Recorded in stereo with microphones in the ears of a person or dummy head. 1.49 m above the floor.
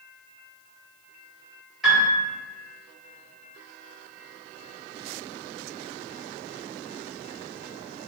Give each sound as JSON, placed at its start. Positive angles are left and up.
{"t": 1.8, "sound": "a piano", "side_deg": 0, "distance_m": 1.5}